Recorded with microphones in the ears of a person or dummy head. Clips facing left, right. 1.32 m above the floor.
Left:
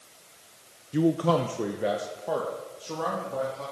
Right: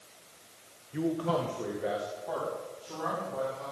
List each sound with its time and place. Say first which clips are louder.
0.9 s a man speaking: left 7 dB; 50° left (ahead or behind), 0.6 m; by 3.6 s 65° left (ahead or behind), 3.5 m